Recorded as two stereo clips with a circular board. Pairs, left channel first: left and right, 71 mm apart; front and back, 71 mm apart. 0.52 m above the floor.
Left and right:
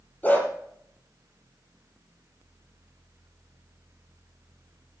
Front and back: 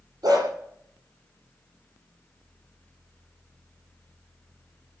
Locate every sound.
0.2 s a dog barking: 155° left, 7 m